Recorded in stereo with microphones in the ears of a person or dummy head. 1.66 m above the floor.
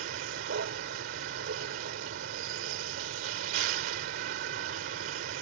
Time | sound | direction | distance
0.0 | a vehicle | 60° right (ahead or behind) | ?